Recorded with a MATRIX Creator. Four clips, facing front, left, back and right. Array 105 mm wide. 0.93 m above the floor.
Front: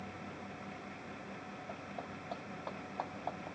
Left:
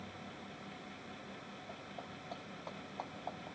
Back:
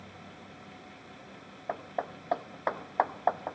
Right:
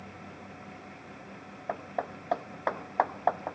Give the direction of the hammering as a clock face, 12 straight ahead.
4 o'clock.